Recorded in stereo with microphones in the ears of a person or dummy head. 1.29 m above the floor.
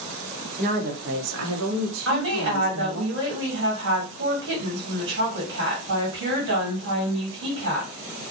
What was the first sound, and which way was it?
A woman speaking, 40° right (ahead or behind).